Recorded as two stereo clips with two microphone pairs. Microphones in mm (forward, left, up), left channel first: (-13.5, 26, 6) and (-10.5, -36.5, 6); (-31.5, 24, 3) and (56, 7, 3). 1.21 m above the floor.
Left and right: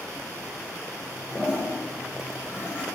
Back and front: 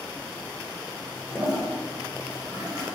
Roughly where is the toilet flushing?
Ahead.